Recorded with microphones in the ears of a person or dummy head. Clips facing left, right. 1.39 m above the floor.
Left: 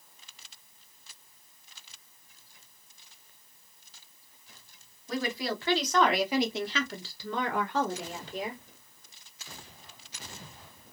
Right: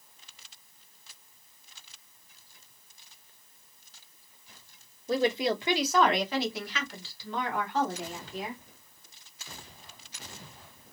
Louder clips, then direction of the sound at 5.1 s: Right 6 dB; 35° right (ahead or behind).